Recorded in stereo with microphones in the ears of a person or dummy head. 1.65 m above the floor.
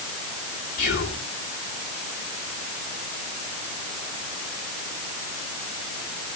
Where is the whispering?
55° left (ahead or behind), 3.5 m.